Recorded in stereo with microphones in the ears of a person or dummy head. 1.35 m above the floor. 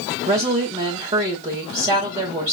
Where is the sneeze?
No sneeze in this recording.